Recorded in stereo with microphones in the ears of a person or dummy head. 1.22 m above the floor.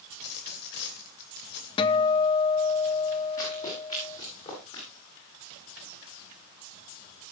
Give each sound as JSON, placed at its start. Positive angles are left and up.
{"t": 0.1, "sound": "a dropped coin", "side_deg": 65, "distance_m": 2.5}
{"t": 1.8, "sound": "a guitar", "side_deg": 25, "distance_m": 0.9}
{"t": 3.4, "sound": "running footsteps", "side_deg": 40, "distance_m": 8.0}